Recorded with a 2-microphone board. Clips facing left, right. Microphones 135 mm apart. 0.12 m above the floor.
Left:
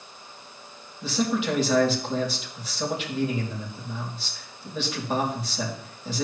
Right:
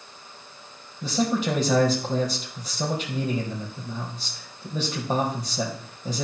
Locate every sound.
1.0 s a man speaking: 40° right (ahead or behind), 4.5 m